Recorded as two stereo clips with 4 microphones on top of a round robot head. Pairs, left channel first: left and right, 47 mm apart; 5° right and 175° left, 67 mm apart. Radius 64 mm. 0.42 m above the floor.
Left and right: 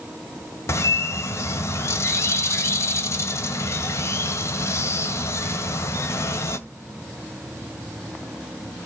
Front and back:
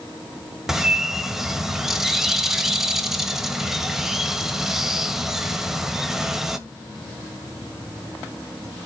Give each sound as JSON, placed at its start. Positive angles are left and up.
{"t": 0.7, "sound": "a bird", "azimuth_deg": 90, "distance_m": 1.6}